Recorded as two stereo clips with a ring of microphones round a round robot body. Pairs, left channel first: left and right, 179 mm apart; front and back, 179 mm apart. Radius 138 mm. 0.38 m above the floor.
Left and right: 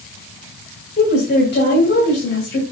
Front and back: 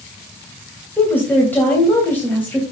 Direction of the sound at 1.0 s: 80° left.